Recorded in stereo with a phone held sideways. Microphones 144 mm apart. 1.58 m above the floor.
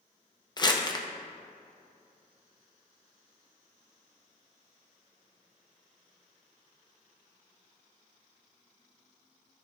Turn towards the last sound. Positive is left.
turn(degrees=30)  # may be behind; listen again after turning